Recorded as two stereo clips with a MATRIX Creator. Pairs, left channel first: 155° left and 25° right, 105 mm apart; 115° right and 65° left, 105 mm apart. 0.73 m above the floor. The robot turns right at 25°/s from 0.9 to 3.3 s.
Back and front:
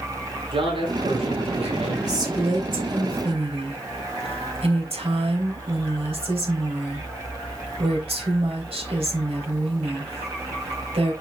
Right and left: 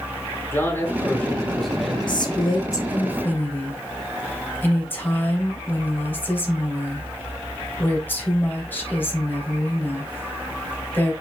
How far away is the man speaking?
About 3 m.